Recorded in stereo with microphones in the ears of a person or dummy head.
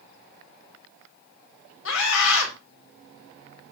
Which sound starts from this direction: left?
A scream, at 1.9 s.